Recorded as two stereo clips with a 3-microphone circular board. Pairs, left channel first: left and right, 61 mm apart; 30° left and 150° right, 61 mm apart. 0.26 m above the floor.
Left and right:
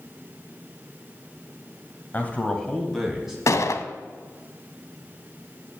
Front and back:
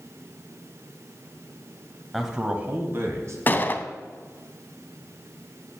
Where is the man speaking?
125° left, 1.2 m; by 3.4 s 170° right, 1.9 m.